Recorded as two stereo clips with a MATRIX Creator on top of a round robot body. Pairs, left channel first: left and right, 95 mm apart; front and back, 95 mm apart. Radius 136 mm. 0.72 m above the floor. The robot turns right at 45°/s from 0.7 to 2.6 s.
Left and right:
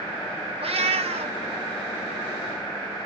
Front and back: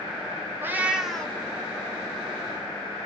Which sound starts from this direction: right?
A cat meowing, at 0.6 s.